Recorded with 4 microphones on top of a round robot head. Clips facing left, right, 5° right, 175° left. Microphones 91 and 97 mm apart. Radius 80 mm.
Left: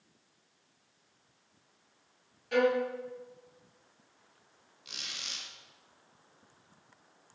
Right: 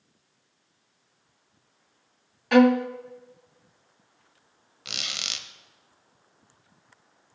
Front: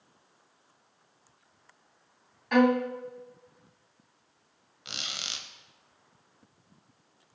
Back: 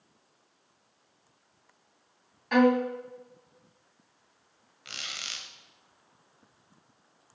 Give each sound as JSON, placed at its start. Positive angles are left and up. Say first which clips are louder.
{"t": 2.5, "sound": "a violin", "louder": "right 9 dB, back 1 dB", "azimuth_deg": -95, "distance_m": 0.7}
{"t": 4.8, "sound": "a squeak", "louder": "right 8 dB, front 1 dB", "azimuth_deg": -75, "distance_m": 0.9}